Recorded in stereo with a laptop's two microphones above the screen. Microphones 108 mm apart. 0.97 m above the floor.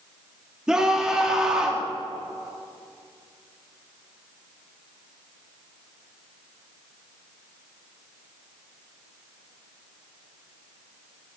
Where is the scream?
10° right (ahead or behind), 2.0 m.